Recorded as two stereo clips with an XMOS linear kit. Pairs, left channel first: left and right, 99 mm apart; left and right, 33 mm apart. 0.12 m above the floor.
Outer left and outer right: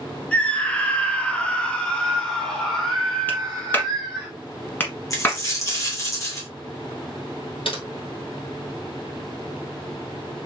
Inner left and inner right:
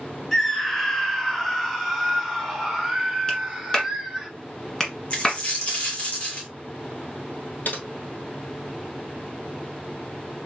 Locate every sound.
0.3 s a scream: 10° left (ahead or behind), 1.5 m; by 4.3 s centre (ahead or behind), 1.7 m
3.3 s a clap: 20° left (ahead or behind), 1.4 m
5.1 s a dropped coin: 35° left (ahead or behind), 1.4 m
7.7 s typing on a keyboard: 65° left (ahead or behind), 1.4 m